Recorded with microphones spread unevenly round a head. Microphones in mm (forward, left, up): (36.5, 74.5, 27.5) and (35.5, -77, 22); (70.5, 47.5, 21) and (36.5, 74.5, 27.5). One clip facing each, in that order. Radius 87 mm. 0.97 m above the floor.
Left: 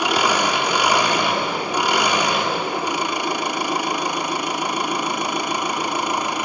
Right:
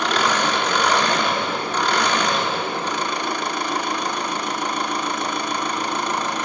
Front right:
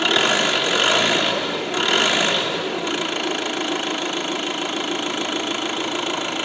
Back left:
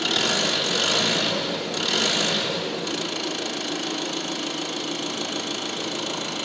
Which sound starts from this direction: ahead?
An engine running, at 0.0 s.